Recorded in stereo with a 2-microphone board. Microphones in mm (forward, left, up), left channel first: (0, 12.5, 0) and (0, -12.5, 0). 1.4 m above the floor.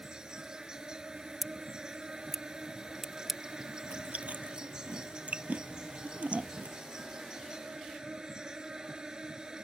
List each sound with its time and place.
0.0 s an insect: 30° right (ahead or behind)
1.4 s scissors: 10° right (ahead or behind)
3.8 s chewing: 50° right (ahead or behind)